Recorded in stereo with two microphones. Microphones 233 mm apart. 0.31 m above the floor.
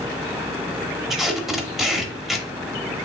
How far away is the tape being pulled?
About 0.8 m.